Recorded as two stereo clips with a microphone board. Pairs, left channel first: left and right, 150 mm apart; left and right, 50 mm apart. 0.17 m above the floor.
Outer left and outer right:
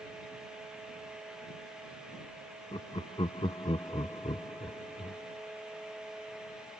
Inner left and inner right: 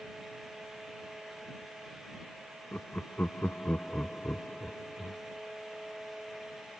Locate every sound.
2.7 s laughter: 35° left (ahead or behind)